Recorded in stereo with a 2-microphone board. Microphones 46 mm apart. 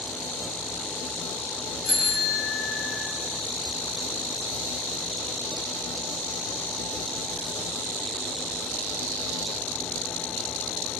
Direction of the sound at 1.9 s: Centre (ahead or behind).